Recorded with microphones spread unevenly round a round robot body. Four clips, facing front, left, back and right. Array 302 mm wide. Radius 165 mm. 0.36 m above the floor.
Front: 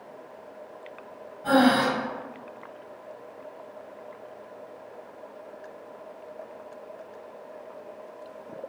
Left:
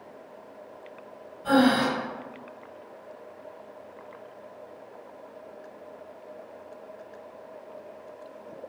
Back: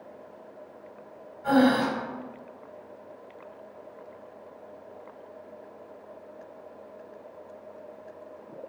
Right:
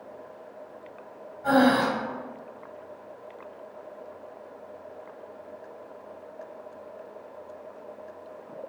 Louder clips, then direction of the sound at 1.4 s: Right 1 dB, front 1 dB; 100° right.